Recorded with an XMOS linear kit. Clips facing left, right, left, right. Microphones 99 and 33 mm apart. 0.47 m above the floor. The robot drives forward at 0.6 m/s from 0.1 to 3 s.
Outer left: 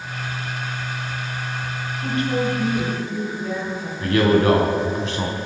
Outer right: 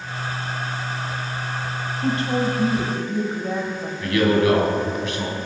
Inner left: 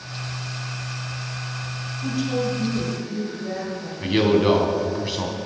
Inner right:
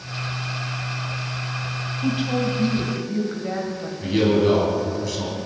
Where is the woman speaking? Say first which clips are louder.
Even, inner right 1 dB; 30° right (ahead or behind), 3 m; by 3.9 s 35° right (ahead or behind), 2.5 m.